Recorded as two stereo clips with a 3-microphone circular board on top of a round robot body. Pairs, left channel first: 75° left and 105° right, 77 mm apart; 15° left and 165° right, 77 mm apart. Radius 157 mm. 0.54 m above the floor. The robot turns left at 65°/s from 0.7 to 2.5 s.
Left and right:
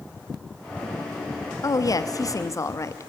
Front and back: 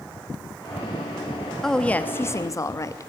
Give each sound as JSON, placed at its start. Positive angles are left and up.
{"t": 1.6, "sound": "a woman speaking", "azimuth_deg": 100, "distance_m": 1.2}